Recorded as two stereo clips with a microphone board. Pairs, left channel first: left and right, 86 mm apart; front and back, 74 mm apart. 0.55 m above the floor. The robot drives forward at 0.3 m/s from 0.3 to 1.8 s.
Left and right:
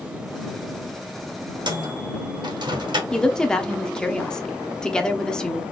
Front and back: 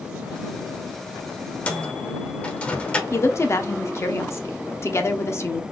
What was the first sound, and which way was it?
A microwave, 70° right.